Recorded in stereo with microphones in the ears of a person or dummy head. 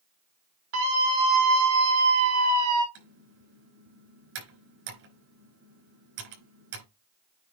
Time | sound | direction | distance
0.7 | a scream | 80° right | 5.5 m
3.0 | typing on a keyboard | 70° right (ahead or behind) | 4 m